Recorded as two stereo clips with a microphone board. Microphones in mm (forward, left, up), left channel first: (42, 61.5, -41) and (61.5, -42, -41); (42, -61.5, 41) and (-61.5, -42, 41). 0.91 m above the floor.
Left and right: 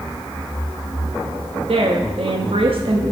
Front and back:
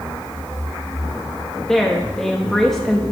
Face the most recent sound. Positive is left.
turn(degrees=-100)